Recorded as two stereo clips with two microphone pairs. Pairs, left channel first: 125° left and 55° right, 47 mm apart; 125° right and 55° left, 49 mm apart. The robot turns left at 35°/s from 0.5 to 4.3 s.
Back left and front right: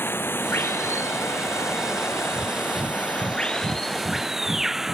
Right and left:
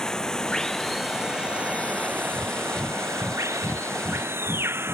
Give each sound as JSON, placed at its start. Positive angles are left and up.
{"t": 0.0, "sound": "running water", "azimuth_deg": 160}
{"t": 2.3, "sound": "breathing", "azimuth_deg": -25}